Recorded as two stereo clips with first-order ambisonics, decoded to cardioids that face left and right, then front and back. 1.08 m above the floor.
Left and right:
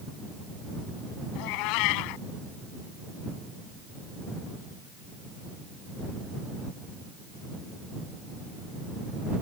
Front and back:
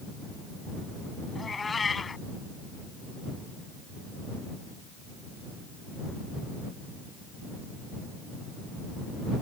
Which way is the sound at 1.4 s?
75° left.